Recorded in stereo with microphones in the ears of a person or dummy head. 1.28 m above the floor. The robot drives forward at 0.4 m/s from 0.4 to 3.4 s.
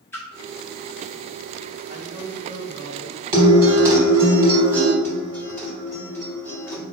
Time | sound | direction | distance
0.1 | a splash | 10° left (ahead or behind) | 0.7 m
1.9 | a man speaking | 40° right (ahead or behind) | 1.8 m
3.3 | a guitar | 20° right (ahead or behind) | 0.9 m
5.0 | a guitar | 15° left (ahead or behind) | 1.4 m